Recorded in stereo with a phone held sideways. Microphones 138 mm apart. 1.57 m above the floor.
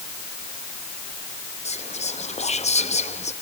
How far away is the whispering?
About 0.8 m.